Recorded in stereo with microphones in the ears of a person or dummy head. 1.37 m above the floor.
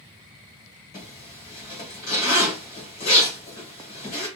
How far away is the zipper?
About 1.2 m.